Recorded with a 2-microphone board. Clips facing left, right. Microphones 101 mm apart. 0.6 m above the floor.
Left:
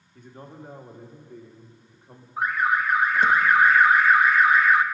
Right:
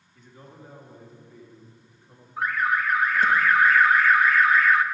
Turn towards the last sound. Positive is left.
turn(degrees=20)  # may be behind; listen again after turning